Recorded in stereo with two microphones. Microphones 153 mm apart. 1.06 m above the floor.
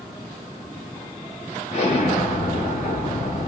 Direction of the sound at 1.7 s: 45° left (ahead or behind).